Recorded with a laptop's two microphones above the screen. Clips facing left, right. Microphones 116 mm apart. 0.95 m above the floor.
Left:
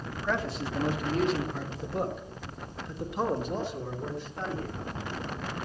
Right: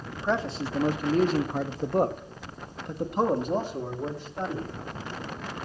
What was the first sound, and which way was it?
A man speaking, 25° right (ahead or behind).